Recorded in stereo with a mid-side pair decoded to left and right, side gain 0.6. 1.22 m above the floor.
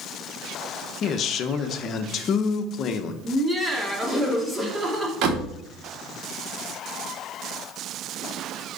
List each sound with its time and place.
1.0 s a man speaking: 50° left, 1.0 m
3.2 s laughter: 10° right, 2.5 m
5.2 s a door slam: 65° right, 1.9 m